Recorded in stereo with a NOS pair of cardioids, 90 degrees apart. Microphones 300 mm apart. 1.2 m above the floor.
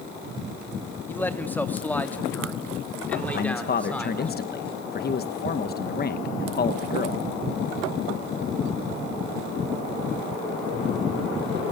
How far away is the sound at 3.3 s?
About 1.1 m.